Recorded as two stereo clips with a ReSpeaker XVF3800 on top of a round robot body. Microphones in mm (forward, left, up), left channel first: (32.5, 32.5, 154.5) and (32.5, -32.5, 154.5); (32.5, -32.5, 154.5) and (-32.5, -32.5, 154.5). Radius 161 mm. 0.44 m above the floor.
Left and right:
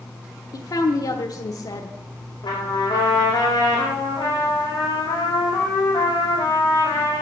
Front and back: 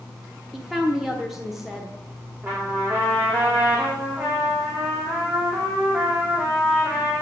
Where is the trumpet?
110° left, 5 m.